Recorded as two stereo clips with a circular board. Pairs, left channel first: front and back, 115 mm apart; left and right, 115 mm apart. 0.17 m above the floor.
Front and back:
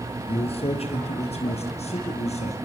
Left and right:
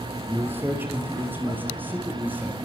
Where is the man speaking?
20° right, 3.5 m; by 2.5 s 15° right, 4.5 m.